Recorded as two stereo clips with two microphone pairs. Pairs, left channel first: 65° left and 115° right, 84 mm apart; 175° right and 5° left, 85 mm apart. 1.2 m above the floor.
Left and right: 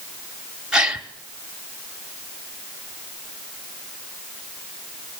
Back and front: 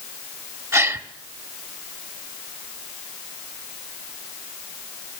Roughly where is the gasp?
Ahead right.